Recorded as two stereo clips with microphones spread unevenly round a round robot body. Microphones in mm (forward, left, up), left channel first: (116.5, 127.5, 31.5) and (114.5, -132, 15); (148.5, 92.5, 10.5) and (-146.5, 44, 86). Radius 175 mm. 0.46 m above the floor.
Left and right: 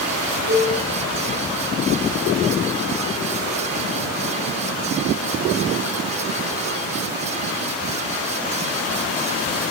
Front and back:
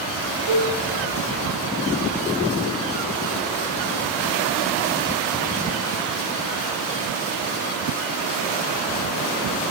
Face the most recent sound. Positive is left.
turn(degrees=-150)